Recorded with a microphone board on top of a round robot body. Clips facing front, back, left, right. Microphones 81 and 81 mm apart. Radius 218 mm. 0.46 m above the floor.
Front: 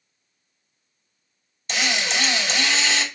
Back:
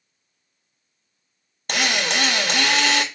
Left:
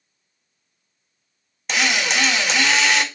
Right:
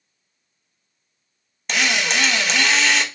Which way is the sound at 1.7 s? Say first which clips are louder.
Back 2 dB, even; 175° left.